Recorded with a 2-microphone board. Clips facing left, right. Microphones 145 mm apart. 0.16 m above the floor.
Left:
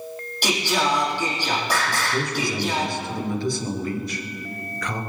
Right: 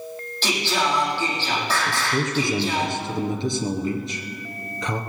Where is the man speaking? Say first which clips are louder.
Right 1 dB; 25° right (ahead or behind), 2.5 m.